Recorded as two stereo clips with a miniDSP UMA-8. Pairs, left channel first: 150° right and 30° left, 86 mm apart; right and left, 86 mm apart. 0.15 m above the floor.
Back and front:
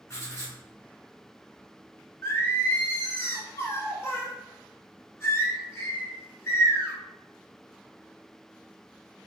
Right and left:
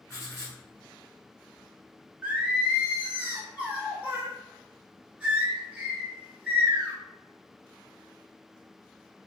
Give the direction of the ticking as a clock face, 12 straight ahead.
I don't hear ticking.